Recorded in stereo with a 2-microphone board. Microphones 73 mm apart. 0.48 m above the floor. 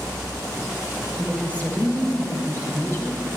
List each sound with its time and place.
1.2 s a woman speaking: 10° left (ahead or behind), 2 m; by 3.2 s 40° left (ahead or behind), 3 m